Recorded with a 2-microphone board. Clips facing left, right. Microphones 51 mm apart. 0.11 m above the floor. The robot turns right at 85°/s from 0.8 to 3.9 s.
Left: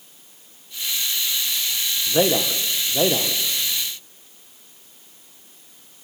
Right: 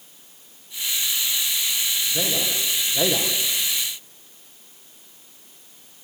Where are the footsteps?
I don't hear footsteps.